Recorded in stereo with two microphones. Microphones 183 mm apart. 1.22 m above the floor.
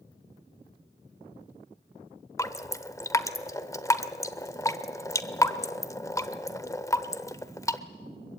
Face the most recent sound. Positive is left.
turn(degrees=15)  # may be behind; listen again after turning